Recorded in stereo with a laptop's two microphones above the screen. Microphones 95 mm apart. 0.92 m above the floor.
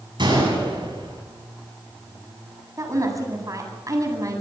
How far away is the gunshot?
About 8.5 m.